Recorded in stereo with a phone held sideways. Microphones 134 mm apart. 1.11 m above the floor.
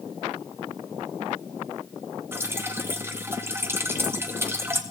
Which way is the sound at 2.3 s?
15° right (ahead or behind).